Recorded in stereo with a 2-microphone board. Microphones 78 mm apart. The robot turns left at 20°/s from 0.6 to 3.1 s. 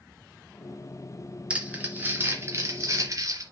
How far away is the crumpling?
About 3 m.